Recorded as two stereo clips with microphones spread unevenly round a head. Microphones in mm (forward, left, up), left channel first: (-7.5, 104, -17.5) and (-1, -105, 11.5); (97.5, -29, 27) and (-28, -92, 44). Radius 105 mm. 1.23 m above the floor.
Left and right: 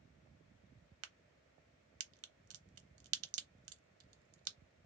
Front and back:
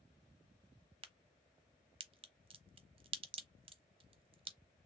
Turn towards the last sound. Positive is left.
turn(degrees=-100)